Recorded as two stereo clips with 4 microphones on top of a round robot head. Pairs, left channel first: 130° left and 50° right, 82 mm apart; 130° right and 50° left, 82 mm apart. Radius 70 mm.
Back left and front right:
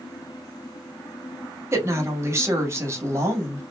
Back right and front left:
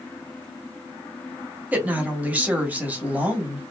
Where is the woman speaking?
15° right, 1.0 m.